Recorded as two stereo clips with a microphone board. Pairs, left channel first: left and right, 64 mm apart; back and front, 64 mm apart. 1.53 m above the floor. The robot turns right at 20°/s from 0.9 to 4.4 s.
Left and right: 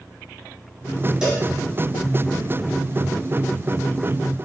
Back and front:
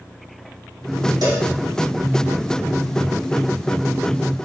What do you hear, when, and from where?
1.2 s a cowbell: 10° right, 0.7 m; by 1.5 s 5° right, 0.7 m